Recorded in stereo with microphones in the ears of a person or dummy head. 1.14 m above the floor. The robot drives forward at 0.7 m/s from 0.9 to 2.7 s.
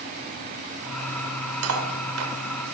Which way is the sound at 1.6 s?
80° right.